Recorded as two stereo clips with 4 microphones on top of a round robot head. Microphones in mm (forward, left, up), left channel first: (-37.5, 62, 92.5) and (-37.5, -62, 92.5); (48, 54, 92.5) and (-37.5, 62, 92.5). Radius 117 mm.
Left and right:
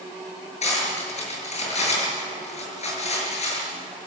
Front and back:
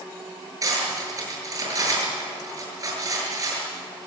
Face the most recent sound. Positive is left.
turn(degrees=125)